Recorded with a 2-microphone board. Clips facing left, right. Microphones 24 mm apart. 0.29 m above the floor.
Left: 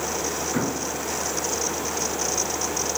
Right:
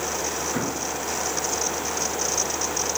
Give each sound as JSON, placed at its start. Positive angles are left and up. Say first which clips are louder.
{"t": 0.5, "sound": "an explosion", "louder": "left 1 dB", "side_deg": 0, "distance_m": 1.9}